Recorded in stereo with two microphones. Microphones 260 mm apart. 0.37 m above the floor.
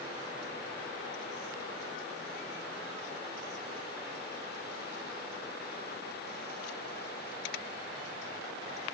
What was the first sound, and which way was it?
Only background noise.